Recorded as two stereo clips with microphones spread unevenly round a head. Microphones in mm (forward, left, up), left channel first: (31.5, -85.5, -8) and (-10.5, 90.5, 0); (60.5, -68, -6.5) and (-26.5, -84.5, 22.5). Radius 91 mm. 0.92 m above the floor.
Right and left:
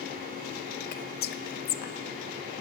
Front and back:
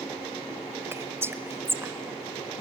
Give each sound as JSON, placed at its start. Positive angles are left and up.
{"t": 0.9, "sound": "whispering", "azimuth_deg": -90, "distance_m": 0.5}